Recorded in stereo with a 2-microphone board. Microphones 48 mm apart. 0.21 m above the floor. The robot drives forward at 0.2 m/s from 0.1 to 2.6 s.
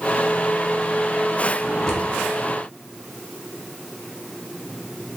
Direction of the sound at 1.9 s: 15° left (ahead or behind).